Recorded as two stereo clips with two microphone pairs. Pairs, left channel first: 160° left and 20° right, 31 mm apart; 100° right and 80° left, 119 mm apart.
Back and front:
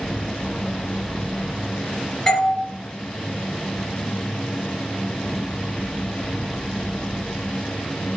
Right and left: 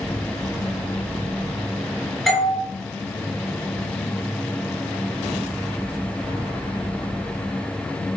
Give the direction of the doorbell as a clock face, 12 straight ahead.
6 o'clock.